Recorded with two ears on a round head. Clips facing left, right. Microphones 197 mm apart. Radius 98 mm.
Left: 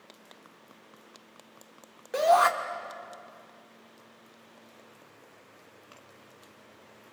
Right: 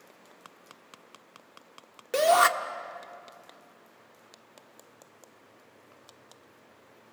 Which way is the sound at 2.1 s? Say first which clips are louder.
Even; 35° right (ahead or behind).